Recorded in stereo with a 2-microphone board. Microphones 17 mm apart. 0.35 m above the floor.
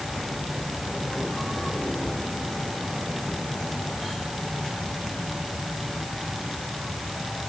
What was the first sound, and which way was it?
Only background noise.